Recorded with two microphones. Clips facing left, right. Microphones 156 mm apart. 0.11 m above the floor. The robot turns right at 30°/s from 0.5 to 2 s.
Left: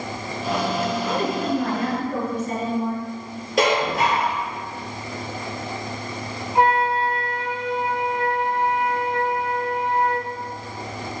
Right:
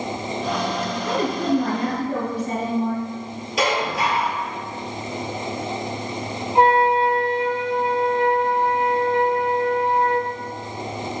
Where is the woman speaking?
30° right (ahead or behind), 1.9 m; by 3.0 s 15° right (ahead or behind), 1.9 m.